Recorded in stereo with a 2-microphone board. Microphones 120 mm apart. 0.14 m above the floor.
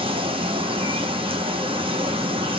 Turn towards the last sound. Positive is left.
turn(degrees=-50)  # may be behind; listen again after turning